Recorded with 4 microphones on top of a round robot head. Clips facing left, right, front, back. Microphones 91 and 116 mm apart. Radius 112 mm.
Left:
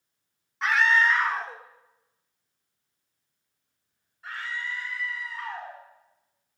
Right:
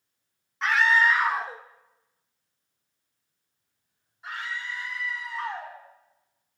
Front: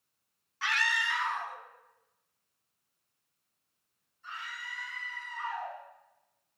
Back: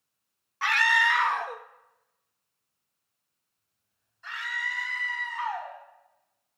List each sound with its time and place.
0.6 s a scream: 175° left, 1.0 m; by 5.8 s 165° right, 5.5 m